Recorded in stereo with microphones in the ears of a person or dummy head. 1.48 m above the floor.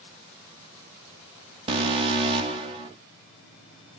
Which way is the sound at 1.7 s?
30° right (ahead or behind).